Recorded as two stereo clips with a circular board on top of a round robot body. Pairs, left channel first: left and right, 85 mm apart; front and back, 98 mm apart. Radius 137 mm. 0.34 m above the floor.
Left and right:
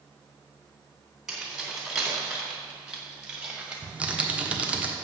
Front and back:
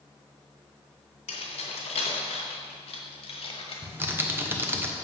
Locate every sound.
1.3 s keys jangling: 5° right, 3 m; by 3.8 s 15° right, 1.8 m
3.8 s typing on a keyboard: 145° right, 1.4 m